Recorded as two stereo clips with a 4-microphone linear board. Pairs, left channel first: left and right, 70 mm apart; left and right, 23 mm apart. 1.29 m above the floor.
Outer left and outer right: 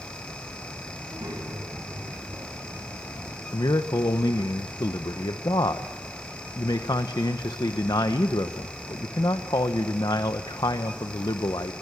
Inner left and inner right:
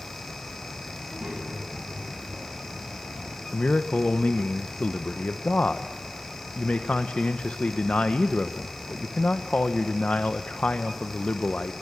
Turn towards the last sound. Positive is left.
turn(degrees=80)